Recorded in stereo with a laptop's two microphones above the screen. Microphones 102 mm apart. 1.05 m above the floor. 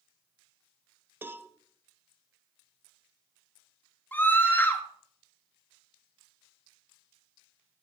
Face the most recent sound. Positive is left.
turn(degrees=20)  # may be behind; listen again after turning